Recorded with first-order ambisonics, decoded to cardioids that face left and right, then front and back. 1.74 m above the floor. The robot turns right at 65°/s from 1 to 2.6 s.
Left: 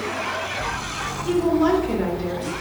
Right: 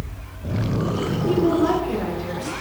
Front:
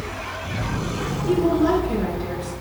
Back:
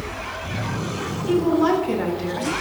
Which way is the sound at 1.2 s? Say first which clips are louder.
Even, back 1 dB; 115° left.